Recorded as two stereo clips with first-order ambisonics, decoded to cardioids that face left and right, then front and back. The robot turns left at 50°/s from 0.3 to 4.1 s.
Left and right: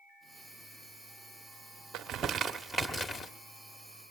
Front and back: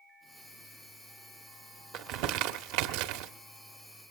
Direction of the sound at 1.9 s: 140° right.